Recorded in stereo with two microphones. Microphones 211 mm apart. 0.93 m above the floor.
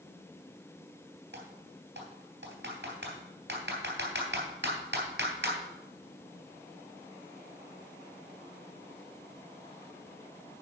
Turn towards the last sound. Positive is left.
turn(degrees=-60)  # may be behind; listen again after turning